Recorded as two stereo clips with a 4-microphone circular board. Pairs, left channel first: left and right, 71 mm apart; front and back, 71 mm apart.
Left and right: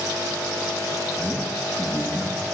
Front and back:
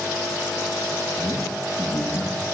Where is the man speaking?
55° left, 8.5 m.